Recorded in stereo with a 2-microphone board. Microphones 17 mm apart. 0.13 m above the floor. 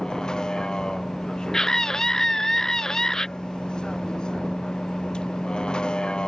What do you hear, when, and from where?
0.0 s a vehicle: 60° left (ahead or behind); by 6.3 s 85° left
1.5 s a scream: 40° left (ahead or behind)